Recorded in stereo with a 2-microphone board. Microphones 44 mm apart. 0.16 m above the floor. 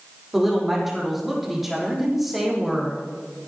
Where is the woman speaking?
Centre (ahead or behind), 6 m.